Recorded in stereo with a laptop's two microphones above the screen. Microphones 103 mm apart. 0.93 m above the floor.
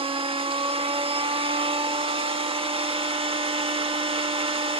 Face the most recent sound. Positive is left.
turn(degrees=-60)  # may be behind; listen again after turning